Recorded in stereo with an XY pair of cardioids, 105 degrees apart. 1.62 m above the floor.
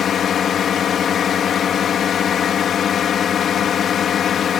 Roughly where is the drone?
Ahead left.